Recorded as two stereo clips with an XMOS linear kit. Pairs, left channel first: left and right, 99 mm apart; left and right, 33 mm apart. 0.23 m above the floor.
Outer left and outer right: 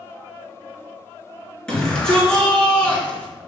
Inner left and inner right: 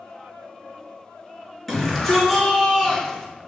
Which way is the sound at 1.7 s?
10° left (ahead or behind).